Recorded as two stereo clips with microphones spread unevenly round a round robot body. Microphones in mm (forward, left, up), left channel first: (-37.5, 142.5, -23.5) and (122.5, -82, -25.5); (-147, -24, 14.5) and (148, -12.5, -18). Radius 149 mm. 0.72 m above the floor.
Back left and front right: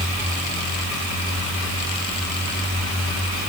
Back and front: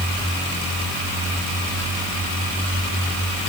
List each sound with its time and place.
Only background noise.